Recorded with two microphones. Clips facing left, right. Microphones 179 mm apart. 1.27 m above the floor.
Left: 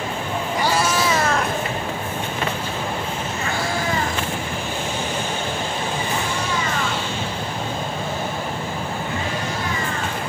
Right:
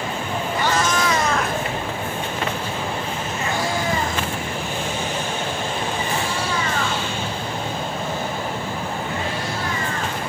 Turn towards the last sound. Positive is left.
turn(degrees=-35)  # may be behind; listen again after turning